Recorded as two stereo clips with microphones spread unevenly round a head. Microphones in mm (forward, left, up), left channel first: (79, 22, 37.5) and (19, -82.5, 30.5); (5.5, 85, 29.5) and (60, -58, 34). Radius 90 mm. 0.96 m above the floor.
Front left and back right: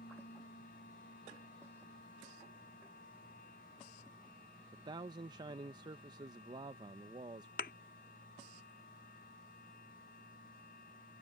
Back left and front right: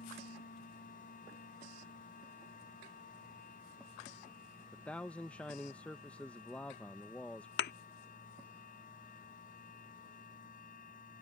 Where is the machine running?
80° left.